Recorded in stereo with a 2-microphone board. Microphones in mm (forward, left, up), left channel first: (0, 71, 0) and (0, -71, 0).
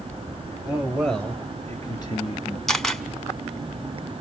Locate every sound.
0.7 s a man speaking: 5° right (ahead or behind), 2.5 m; by 2.6 s 50° left (ahead or behind), 2.5 m
2.7 s a camera shutter: 5° left (ahead or behind), 1.2 m